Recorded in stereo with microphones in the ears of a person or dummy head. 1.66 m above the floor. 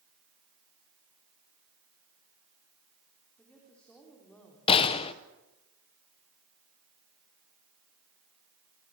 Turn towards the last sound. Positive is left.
turn(degrees=30)  # may be behind; listen again after turning